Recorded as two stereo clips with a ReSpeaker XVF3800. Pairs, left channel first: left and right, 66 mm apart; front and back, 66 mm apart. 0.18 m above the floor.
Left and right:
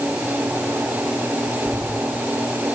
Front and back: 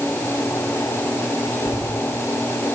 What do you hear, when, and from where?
1.6 s footsteps: 165° right, 3.5 m